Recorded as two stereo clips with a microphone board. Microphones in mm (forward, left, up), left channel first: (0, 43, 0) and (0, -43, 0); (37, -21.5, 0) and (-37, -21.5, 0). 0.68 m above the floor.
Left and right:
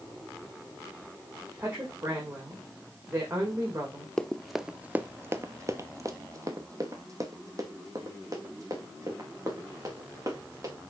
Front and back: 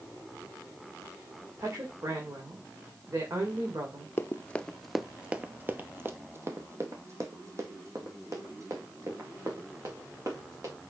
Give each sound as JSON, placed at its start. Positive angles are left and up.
{"t": 1.6, "sound": "a woman speaking", "azimuth_deg": -145, "distance_m": 2.5}
{"t": 4.2, "sound": "running footsteps", "azimuth_deg": 15, "distance_m": 0.7}